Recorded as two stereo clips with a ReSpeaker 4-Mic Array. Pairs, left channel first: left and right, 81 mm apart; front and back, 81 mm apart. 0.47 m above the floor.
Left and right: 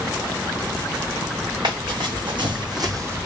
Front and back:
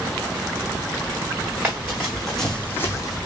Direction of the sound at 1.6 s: 105° right.